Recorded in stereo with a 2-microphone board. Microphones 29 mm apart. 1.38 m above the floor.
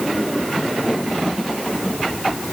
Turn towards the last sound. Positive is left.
No sound to turn to.